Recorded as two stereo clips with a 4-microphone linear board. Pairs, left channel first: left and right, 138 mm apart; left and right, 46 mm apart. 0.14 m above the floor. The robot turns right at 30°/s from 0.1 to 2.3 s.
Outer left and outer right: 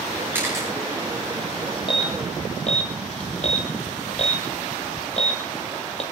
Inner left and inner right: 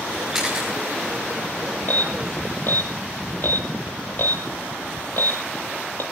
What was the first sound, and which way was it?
A camera shutter, 15° right (ahead or behind).